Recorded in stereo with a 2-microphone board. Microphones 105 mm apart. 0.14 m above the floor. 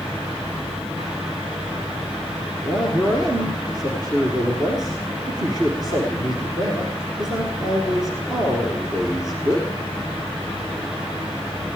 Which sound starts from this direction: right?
A man speaking, at 2.6 s.